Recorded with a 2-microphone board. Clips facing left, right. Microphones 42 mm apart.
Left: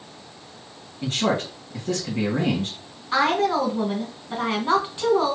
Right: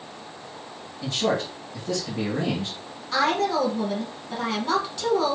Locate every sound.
1.0 s a man speaking: 50° left (ahead or behind), 1.8 m
3.1 s a woman speaking: 25° left (ahead or behind), 1.5 m